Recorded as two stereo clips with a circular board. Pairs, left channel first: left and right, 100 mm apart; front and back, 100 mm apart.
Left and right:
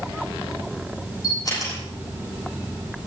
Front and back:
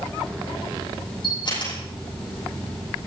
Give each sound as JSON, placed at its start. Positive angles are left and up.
{"t": 1.2, "sound": "a camera shutter", "azimuth_deg": 35, "distance_m": 10.0}